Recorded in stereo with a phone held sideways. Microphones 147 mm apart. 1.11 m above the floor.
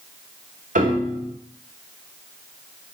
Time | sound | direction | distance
0.8 | a piano | 80° right | 2.5 m